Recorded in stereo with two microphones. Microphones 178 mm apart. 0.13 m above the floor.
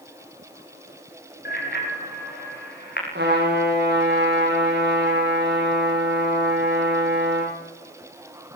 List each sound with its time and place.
1.4 s a bicycle bell: 60° left (ahead or behind), 3.5 m
3.1 s a trumpet: 75° right (ahead or behind), 10 m